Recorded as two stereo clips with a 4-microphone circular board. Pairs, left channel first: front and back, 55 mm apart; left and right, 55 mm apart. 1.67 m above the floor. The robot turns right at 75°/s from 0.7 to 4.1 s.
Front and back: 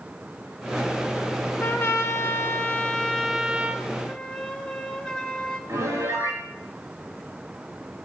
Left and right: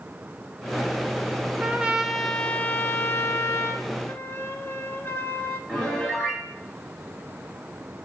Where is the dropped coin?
No dropped coin in this recording.